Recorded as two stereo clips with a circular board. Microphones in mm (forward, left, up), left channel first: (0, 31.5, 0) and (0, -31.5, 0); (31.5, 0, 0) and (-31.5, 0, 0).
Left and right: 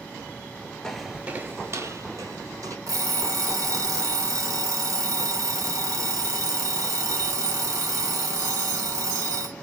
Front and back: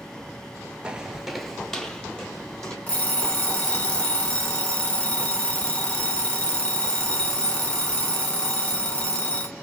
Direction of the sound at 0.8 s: 150° left.